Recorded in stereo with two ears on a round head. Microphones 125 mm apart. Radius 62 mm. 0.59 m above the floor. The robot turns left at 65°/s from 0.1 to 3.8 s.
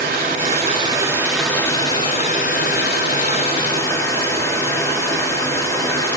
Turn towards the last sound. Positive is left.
turn(degrees=25)